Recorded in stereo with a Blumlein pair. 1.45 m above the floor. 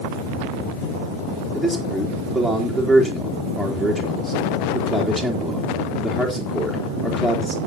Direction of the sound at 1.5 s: 5° left.